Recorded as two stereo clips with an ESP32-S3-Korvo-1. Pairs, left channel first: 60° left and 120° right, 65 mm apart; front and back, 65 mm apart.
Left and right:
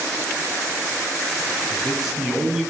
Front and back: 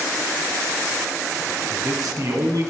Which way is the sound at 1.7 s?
150° left.